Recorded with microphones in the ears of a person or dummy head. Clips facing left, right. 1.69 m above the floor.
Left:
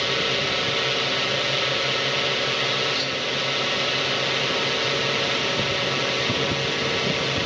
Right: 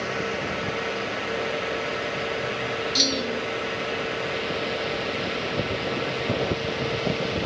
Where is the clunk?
40° right (ahead or behind).